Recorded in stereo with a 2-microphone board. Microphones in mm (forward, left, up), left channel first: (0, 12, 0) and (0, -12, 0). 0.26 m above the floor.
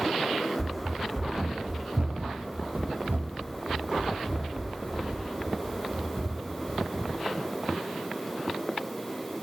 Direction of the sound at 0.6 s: 5° right (ahead or behind).